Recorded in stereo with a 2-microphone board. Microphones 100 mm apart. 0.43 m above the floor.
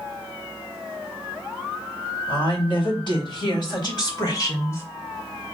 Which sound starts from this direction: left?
A woman speaking, at 2.3 s.